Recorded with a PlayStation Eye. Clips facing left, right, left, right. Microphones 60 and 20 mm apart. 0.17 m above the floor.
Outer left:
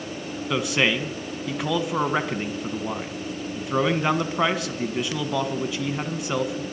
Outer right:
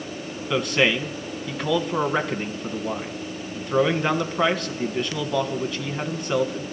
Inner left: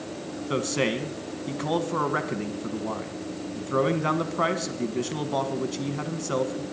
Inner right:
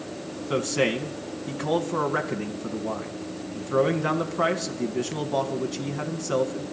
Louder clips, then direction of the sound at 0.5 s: Outer right 2 dB, inner right 2 dB; 5° left (ahead or behind).